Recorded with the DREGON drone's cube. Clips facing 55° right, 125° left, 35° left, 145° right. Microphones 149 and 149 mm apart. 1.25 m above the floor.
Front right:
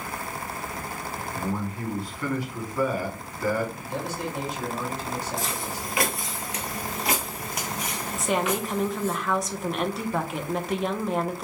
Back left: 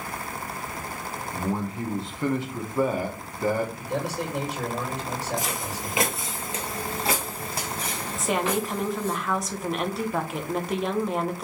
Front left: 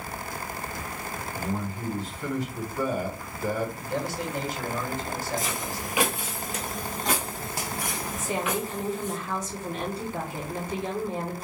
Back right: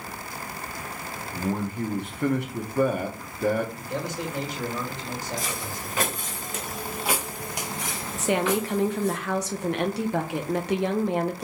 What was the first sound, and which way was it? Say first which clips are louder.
A man speaking: back left 2 dB, back right 5 dB; 170° right.